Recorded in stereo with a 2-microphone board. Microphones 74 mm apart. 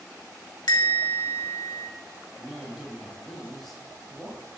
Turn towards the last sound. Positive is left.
turn(degrees=0)  # may be behind; listen again after turning